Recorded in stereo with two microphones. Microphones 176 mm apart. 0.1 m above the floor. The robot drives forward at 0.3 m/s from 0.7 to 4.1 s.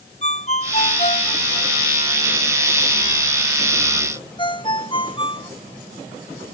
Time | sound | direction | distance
0.2 | a ringtone | 40° left (ahead or behind) | ?